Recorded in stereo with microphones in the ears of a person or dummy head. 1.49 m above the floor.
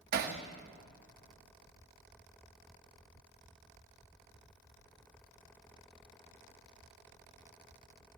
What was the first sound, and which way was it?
Hammering, 50° right (ahead or behind).